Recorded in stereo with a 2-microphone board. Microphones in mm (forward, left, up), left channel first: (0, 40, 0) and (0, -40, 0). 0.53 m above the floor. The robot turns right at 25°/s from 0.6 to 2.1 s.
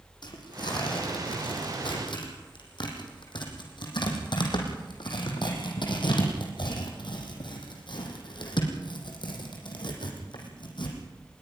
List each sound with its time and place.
0.2 s tearing paper: 65° left (ahead or behind), 5 m; by 11.0 s 75° left (ahead or behind), 5 m